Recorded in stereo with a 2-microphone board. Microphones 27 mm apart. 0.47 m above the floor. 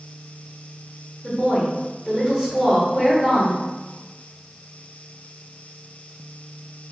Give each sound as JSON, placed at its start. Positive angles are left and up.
{"t": 1.2, "sound": "a woman speaking", "side_deg": -15, "distance_m": 1.7}